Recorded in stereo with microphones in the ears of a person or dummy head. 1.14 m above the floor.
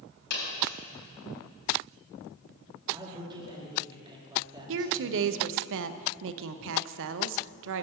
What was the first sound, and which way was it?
A dropped coin, 55° left (ahead or behind).